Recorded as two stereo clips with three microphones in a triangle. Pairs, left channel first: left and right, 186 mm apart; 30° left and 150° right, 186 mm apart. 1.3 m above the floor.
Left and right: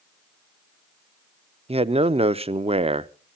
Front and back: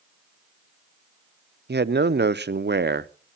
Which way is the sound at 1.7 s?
145° right.